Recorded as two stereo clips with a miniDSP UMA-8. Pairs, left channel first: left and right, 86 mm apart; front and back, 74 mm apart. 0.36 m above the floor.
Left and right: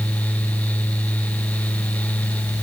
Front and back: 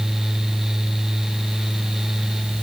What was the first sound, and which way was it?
Only background noise.